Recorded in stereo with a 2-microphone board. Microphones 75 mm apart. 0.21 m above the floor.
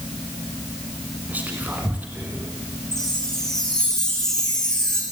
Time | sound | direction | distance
1.3 | whispering | 20° right (ahead or behind) | 2.5 m
2.9 | a chime | 5° left (ahead or behind) | 4 m